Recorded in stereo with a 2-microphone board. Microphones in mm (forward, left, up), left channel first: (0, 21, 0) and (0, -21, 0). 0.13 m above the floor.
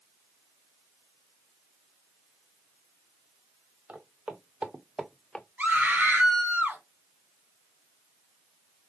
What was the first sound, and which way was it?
Footsteps, 40° right (ahead or behind).